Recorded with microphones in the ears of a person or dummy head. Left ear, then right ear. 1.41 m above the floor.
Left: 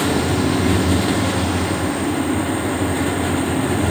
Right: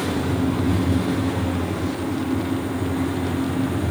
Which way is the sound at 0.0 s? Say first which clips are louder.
Left 5 dB; 35° left (ahead or behind).